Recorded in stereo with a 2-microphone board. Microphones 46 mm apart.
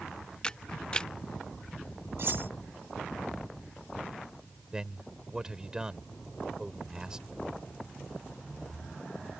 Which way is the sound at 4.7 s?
15° right (ahead or behind).